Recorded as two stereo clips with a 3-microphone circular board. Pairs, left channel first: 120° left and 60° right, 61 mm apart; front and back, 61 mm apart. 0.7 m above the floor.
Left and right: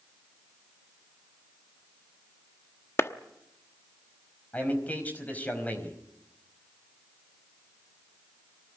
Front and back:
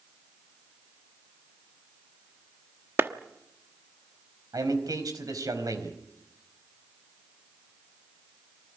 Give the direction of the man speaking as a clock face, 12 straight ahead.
6 o'clock.